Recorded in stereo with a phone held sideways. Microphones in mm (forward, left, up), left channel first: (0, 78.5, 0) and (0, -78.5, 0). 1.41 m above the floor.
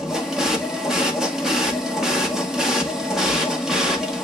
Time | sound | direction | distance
0.0 | a machine running | 5° right (ahead or behind) | 1.7 m